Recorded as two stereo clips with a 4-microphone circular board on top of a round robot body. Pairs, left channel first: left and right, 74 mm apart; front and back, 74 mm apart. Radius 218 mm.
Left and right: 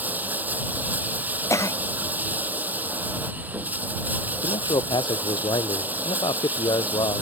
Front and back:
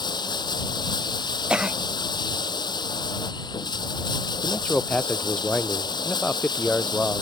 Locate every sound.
0.0 s running water: 20° right
1.5 s a cough: 105° left
4.4 s a man speaking: 75° left